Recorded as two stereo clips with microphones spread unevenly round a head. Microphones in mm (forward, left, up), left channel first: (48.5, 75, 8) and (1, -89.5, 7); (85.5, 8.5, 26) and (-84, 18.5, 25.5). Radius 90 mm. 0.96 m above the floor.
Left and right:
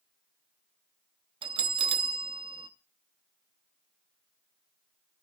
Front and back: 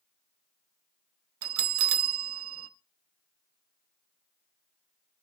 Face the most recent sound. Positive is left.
turn(degrees=-170)